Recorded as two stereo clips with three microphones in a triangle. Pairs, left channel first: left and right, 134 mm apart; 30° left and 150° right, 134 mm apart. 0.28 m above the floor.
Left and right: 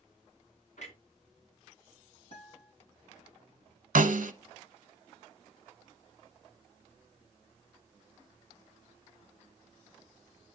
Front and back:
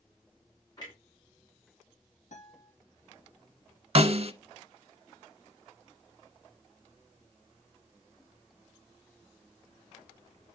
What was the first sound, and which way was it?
A clunk, 85° left.